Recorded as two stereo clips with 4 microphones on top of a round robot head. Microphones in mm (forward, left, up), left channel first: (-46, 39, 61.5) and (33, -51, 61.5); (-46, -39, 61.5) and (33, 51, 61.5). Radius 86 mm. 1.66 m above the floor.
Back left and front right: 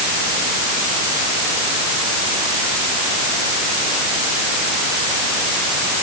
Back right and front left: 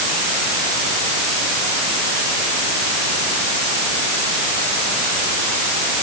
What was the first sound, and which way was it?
Only background noise.